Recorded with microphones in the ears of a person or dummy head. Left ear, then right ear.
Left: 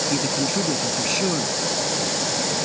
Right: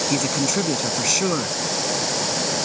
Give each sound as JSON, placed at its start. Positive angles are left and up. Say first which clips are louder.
{"t": 0.1, "sound": "a man speaking", "louder": "right 1 dB", "side_deg": -50}